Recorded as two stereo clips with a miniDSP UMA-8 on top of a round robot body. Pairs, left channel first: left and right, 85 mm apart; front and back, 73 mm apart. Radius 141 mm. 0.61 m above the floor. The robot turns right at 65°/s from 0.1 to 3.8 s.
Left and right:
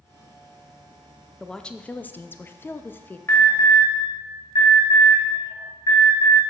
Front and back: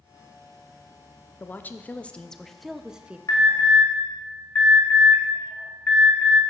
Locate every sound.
1.4 s a woman speaking: 10° left, 0.5 m; by 3.2 s 125° left, 0.5 m
3.3 s an alarm: 35° left, 3 m; by 6.4 s 70° left, 3 m